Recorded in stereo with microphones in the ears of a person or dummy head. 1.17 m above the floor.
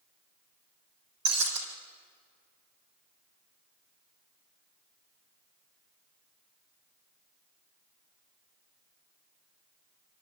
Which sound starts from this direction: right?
Breaking glass, at 1.2 s.